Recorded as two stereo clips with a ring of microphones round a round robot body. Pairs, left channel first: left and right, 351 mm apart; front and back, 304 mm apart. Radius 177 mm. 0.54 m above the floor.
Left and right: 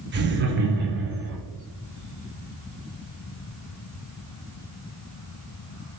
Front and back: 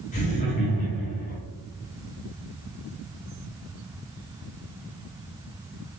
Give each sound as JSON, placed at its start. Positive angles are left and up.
{"t": 0.1, "sound": "laughter", "azimuth_deg": -50, "distance_m": 0.8}